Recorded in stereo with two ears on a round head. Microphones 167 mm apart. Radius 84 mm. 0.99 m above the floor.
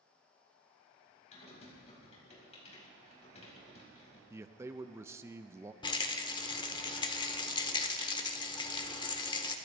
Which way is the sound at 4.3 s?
15° right (ahead or behind).